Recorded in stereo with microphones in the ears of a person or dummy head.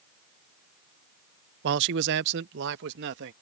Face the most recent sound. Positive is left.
turn(degrees=-65)  # may be behind; listen again after turning